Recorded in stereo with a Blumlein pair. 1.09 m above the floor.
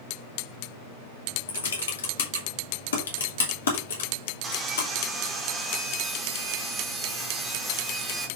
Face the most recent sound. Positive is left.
turn(degrees=-15)